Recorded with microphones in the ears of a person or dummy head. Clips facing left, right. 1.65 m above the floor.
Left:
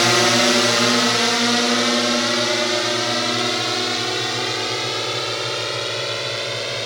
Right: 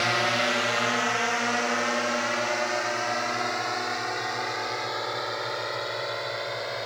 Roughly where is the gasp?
No gasp in this recording.